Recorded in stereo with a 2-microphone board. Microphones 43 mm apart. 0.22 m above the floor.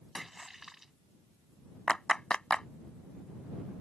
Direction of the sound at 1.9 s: 20° left (ahead or behind).